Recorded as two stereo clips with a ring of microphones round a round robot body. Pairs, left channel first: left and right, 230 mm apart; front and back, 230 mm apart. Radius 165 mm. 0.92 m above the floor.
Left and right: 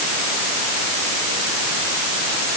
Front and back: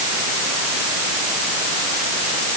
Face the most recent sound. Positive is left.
No sound to turn to.